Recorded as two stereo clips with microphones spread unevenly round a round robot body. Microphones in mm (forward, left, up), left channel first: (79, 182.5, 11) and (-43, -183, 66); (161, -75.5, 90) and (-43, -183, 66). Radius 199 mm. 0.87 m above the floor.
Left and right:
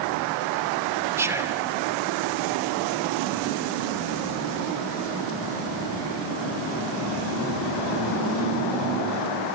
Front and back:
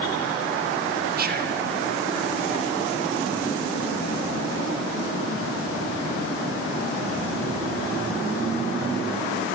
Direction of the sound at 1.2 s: 165° left.